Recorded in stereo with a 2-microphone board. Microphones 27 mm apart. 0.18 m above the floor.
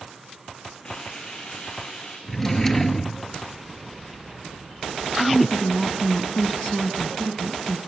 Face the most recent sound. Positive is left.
turn(degrees=10)  # may be behind; listen again after turning